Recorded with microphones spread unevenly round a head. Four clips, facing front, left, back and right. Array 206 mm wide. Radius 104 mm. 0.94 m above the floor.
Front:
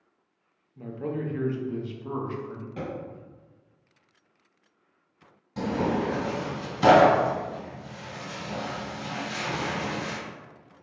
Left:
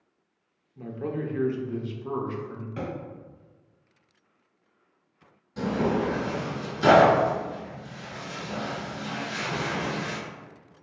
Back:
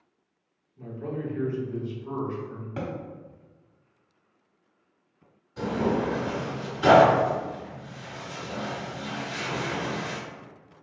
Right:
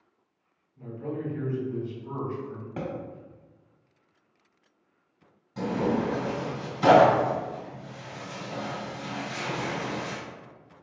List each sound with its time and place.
0.8 s a man speaking: 55° left, 0.8 m
2.8 s a thud: 120° right, 1.0 m
5.6 s tearing paper: 5° left, 1.7 m